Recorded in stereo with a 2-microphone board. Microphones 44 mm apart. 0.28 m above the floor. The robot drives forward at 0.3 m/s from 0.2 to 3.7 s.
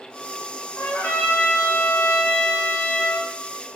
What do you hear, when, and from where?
0.8 s a trumpet: 55° left (ahead or behind), 2.5 m; by 3.3 s 65° left (ahead or behind), 2 m